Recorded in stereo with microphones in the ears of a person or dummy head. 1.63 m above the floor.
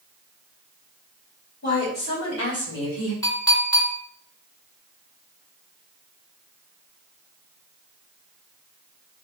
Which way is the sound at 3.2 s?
25° left (ahead or behind).